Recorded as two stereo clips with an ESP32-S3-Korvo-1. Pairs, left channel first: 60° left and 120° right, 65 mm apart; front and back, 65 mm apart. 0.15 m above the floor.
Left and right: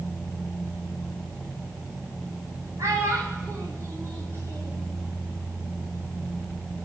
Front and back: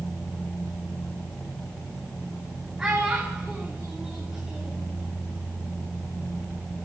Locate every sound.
2.8 s a child speaking: 105° right, 9 m; by 4.8 s 95° right, 9 m